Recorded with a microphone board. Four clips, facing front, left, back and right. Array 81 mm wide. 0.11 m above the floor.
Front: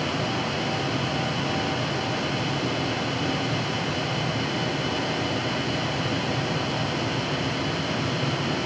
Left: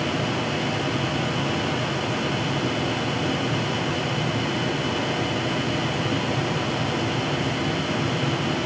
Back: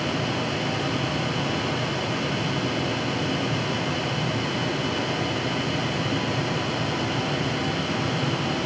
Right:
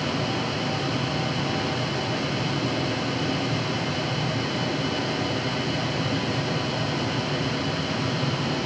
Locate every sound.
Only background noise.